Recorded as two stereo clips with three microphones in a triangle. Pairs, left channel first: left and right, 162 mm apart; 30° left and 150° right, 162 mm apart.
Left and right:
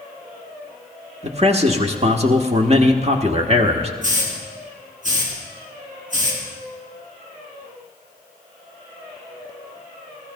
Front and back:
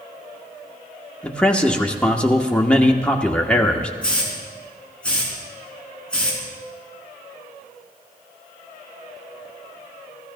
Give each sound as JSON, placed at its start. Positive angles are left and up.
{"t": 1.2, "sound": "a man speaking", "azimuth_deg": -50, "distance_m": 1.3}
{"t": 4.0, "sound": "a hiss", "azimuth_deg": -55, "distance_m": 4.0}